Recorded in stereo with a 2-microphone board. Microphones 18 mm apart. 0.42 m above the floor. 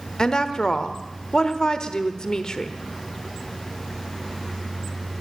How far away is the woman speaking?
About 1.0 m.